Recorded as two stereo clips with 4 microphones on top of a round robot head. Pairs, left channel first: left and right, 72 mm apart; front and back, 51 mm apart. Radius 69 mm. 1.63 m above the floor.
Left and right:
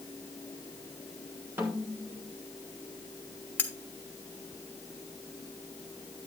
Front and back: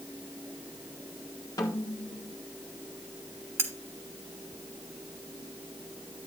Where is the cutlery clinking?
160° left, 1.4 m.